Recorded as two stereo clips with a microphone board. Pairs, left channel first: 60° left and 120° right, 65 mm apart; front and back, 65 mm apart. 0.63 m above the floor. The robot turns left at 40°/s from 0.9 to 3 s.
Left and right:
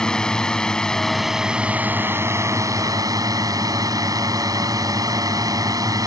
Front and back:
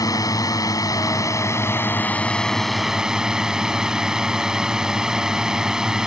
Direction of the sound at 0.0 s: 20° right.